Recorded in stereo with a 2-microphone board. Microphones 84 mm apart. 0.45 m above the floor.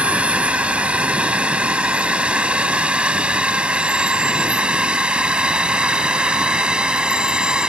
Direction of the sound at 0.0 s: 15° right (ahead or behind).